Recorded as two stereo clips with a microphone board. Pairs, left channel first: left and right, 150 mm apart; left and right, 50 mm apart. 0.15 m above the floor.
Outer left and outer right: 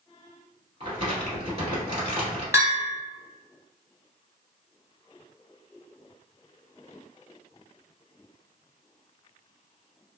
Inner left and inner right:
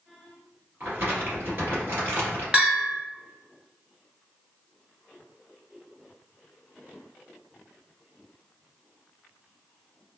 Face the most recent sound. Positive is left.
turn(degrees=-20)  # may be behind; listen again after turning